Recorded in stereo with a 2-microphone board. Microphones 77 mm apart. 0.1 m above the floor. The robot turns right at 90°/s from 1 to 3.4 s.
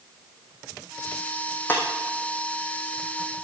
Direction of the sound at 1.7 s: 20° left (ahead or behind).